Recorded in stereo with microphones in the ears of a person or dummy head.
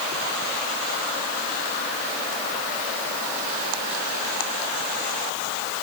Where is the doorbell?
No doorbell in this recording.